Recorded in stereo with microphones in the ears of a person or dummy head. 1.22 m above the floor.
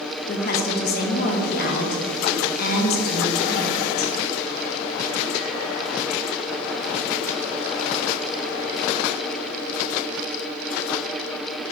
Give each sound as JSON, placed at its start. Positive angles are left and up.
{"t": 0.3, "sound": "a woman speaking", "side_deg": 50, "distance_m": 0.9}